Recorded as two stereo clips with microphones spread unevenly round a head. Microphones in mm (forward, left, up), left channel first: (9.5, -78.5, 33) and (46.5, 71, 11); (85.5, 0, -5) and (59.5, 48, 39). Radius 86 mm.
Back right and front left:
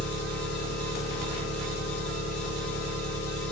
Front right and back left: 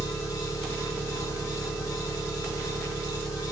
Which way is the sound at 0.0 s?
100° right.